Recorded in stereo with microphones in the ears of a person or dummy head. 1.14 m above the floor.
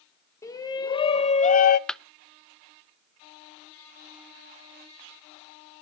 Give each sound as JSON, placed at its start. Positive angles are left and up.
{"t": 0.4, "sound": "a shout", "side_deg": 15, "distance_m": 1.1}
{"t": 1.9, "sound": "a clap", "side_deg": 10, "distance_m": 0.6}